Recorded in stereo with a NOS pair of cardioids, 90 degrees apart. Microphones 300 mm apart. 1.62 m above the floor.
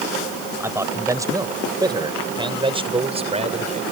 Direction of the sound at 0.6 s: 10° right.